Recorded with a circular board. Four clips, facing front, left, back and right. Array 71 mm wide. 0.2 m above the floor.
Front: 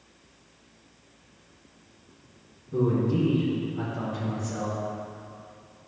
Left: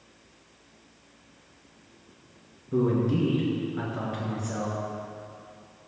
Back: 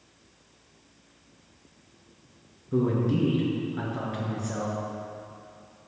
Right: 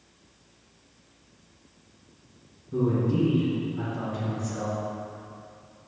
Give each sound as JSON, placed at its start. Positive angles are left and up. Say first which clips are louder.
{"t": 2.7, "sound": "a man speaking", "louder": "left 1 dB, even", "azimuth_deg": 140, "distance_m": 2.5}